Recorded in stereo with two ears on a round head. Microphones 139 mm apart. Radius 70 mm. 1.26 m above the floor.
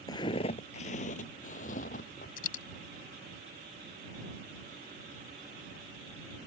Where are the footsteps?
25° left (ahead or behind); by 2.3 s 55° left (ahead or behind).